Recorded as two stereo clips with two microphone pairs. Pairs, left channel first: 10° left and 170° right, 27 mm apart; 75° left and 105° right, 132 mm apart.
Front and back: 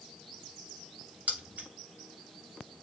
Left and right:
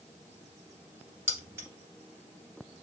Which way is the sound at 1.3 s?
175° right.